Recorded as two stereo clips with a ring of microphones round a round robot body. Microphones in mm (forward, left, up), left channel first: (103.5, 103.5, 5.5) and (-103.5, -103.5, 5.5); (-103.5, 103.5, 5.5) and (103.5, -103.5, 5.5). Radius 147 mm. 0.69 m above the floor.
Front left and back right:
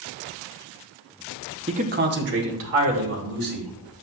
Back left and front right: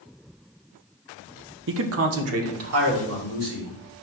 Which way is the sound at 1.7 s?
70° right.